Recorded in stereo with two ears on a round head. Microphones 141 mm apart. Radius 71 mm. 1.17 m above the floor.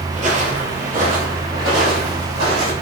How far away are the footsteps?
About 1.7 m.